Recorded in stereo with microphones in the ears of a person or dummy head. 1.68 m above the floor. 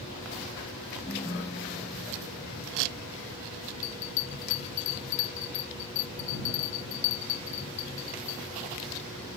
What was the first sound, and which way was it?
A ringtone, 15° left (ahead or behind).